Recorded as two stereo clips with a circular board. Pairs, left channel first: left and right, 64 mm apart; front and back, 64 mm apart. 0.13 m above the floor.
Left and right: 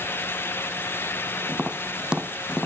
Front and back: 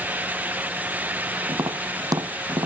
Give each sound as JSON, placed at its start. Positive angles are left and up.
{"t": 1.5, "sound": "tapping", "azimuth_deg": -165}